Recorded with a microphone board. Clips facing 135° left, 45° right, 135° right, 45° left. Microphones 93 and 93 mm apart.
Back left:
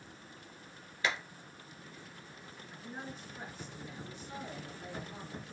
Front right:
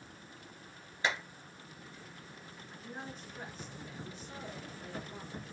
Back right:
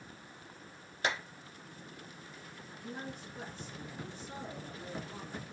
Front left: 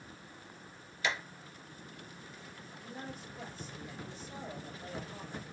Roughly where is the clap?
Right.